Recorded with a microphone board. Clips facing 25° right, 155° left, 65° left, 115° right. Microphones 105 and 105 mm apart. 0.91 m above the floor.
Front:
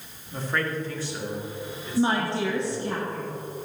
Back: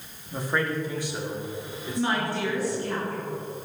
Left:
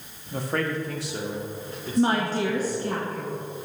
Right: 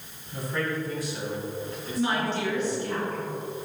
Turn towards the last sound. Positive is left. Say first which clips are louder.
# front 3 dB, left 5 dB
turn(degrees=35)